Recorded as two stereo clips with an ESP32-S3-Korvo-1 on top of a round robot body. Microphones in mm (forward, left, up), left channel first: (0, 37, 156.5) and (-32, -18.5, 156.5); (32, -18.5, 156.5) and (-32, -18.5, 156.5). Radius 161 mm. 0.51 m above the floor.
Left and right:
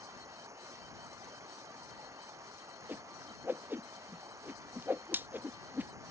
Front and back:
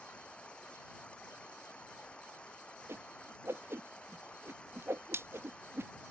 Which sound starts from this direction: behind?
A whoosh, at 2.9 s.